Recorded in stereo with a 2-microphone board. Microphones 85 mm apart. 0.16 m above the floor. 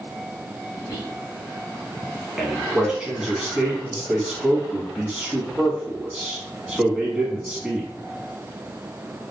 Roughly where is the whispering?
Left.